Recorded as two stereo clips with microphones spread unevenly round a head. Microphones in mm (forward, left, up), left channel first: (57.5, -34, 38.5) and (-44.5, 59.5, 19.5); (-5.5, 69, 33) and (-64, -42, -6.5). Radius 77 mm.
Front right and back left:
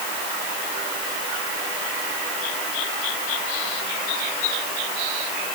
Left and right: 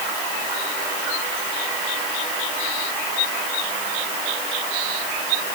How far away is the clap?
I don't hear a clap.